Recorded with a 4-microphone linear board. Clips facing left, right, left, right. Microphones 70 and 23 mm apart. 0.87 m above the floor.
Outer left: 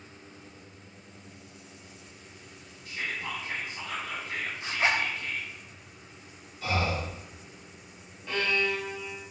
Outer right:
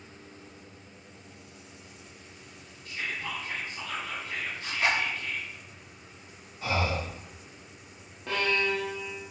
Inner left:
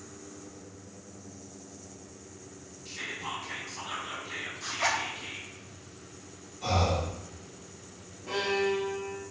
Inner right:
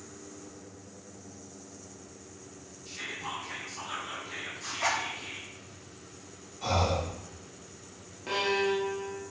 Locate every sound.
2.9 s whispering: 20° left (ahead or behind), 0.9 m
4.6 s a zipper: 30° left (ahead or behind), 0.5 m
6.6 s breathing: 30° right (ahead or behind), 0.9 m
8.3 s a violin: 75° right (ahead or behind), 0.6 m